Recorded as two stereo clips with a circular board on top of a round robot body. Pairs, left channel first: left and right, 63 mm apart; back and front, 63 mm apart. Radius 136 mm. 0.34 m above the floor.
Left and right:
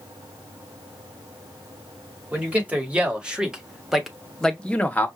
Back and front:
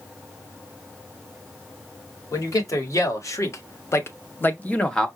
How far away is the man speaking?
About 2 m.